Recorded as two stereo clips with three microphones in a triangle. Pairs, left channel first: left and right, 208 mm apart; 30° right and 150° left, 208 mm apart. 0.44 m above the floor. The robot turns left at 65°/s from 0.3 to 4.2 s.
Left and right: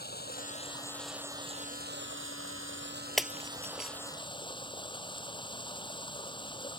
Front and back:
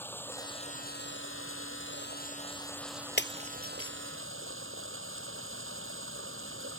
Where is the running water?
50° left; by 6.8 s 155° left.